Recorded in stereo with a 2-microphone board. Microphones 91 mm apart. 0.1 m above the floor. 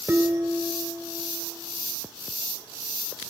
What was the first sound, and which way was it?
Dishes clattering, 25° right (ahead or behind).